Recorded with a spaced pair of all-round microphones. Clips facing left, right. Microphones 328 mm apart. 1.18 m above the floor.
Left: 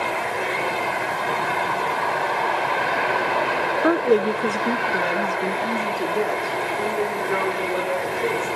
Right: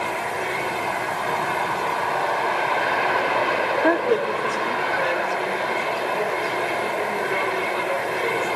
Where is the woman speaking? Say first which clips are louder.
Left 4 dB; 5° left (ahead or behind), 0.5 m; by 8.5 s 65° left (ahead or behind), 6.5 m.